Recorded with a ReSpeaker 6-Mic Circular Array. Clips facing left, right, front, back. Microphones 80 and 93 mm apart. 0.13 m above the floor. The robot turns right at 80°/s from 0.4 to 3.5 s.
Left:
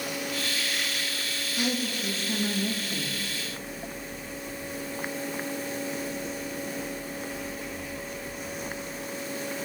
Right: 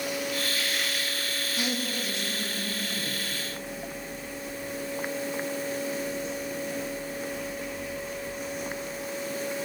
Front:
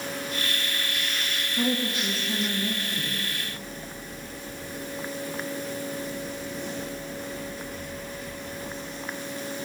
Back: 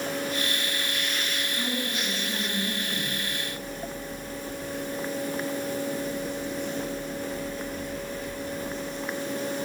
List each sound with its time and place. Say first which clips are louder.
1.6 s a woman speaking: left 3 dB, front 7 dB; straight ahead, 5 m; by 3.2 s 130° left, 5 m